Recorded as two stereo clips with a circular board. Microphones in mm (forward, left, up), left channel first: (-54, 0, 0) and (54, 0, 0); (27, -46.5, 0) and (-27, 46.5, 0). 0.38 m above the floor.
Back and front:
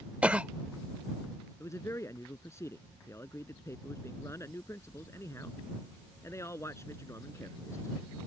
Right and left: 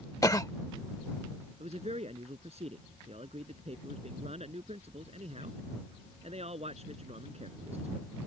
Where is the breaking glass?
I don't hear breaking glass.